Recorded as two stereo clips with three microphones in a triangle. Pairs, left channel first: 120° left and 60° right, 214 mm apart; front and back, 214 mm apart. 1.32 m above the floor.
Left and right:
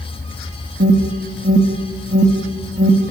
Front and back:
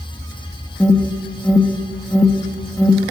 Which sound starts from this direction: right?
An alarm, at 0.8 s.